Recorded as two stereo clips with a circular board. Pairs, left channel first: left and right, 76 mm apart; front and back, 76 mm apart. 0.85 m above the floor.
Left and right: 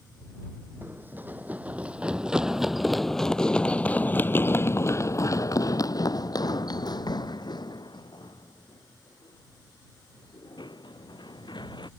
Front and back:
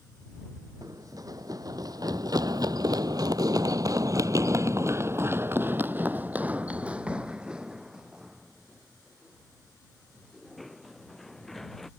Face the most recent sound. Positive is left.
turn(degrees=85)